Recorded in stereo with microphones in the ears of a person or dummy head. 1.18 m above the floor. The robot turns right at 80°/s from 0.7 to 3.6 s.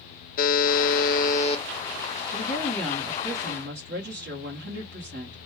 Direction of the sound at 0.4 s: 70° left.